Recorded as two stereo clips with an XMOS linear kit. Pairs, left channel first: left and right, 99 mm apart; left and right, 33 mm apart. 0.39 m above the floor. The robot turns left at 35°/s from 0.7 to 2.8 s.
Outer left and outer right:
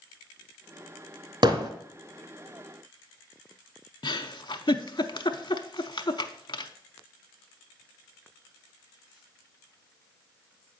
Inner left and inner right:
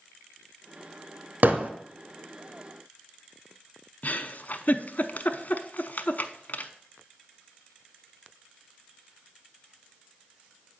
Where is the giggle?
55° left (ahead or behind), 0.5 m.